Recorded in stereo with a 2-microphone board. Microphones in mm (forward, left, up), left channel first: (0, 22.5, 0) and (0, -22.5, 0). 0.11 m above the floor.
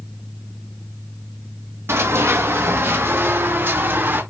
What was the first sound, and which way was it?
Running footsteps, 75° right (ahead or behind).